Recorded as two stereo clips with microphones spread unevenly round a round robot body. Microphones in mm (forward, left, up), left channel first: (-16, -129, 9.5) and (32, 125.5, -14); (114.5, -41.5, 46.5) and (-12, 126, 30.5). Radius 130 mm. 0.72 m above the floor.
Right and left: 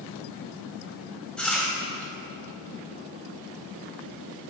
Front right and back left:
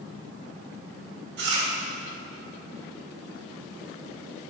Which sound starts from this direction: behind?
Chewing, at 1.4 s.